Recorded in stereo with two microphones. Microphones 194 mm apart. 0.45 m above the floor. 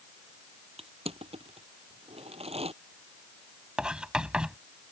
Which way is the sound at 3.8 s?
5° right (ahead or behind).